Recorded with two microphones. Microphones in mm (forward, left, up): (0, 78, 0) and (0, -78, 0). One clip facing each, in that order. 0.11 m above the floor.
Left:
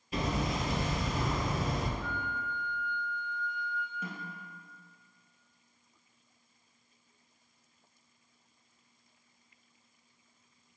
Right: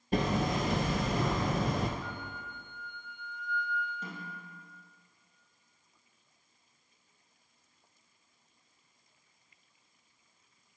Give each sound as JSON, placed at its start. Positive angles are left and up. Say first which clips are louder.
{"t": 0.1, "sound": "hammering", "louder": "right 3 dB", "side_deg": -55, "distance_m": 0.8}
{"t": 2.0, "sound": "a flute", "louder": "left 4 dB", "side_deg": 15, "distance_m": 2.5}
{"t": 4.0, "sound": "a snare drum", "louder": "left 1 dB", "side_deg": 10, "distance_m": 2.0}